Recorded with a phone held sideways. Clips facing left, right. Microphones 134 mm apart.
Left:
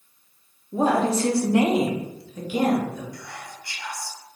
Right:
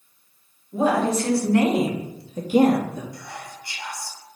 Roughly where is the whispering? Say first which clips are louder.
Right 1 dB; right.